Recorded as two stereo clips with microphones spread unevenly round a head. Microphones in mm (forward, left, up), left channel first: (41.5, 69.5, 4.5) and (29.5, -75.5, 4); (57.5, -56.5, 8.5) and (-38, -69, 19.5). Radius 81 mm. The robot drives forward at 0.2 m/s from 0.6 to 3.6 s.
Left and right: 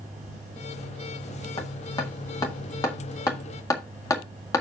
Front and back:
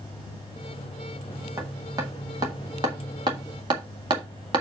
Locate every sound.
1.6 s hammering: 140° left, 1.3 m; by 4.6 s 155° left, 1.5 m